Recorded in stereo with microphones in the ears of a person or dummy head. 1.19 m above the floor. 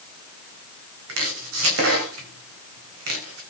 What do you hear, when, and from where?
1.1 s chopping: 80° right, 3.5 m